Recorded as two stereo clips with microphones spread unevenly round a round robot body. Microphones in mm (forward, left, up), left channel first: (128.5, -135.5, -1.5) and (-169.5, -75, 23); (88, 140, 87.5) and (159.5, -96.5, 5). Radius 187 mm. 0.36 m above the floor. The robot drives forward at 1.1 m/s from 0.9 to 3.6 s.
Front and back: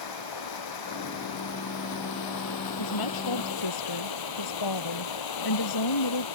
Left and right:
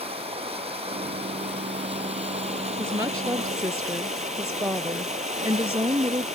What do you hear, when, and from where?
0.0 s running water: 5° right; by 6.3 s 10° right
2.8 s a woman speaking: 5° left